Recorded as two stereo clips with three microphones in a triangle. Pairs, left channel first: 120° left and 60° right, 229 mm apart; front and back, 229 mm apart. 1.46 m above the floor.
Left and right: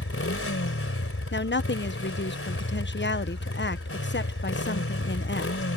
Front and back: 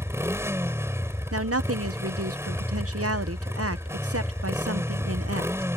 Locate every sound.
0.0 s a motorcycle: 100° left
1.3 s a woman speaking: 160° left